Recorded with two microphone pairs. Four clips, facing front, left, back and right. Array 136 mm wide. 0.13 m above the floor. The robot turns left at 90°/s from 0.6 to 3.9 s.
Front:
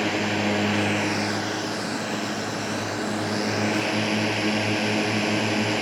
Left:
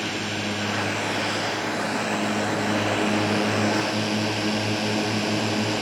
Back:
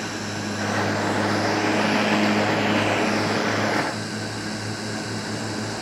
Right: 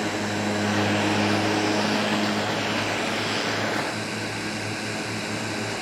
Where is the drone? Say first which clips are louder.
Right 3 dB, front 5 dB; 25° right; by 5.8 s 40° left.